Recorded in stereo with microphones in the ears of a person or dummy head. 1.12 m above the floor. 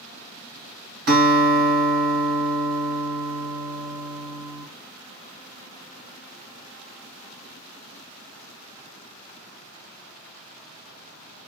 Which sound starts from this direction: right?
A guitar, at 1.1 s.